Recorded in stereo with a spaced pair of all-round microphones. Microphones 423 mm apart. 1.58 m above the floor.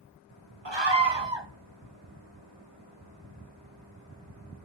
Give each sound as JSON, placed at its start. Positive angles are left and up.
{"t": 0.7, "sound": "a scream", "side_deg": -85, "distance_m": 1.8}